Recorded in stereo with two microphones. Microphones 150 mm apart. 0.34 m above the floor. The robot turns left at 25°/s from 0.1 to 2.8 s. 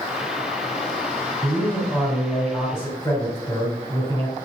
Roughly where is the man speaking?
Behind.